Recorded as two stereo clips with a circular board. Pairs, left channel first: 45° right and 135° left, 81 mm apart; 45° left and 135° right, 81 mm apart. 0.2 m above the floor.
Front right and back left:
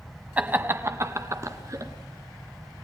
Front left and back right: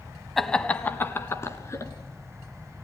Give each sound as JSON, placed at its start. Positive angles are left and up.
{"t": 0.4, "sound": "laughter", "azimuth_deg": 130, "distance_m": 1.0}